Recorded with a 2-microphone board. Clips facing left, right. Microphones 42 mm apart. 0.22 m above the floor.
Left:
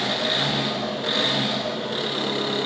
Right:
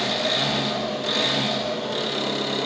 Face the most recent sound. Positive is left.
turn(degrees=20)  # may be behind; listen again after turning